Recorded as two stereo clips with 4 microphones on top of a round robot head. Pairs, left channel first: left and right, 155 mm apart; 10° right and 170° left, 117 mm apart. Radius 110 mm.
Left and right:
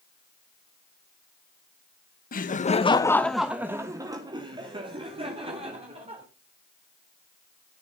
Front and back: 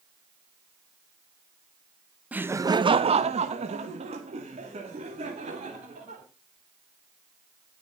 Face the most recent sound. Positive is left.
turn(degrees=-140)